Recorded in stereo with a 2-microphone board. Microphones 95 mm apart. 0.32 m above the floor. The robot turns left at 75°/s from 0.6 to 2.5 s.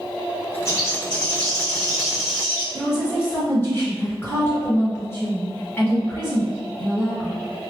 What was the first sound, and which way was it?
A bird, 95° left.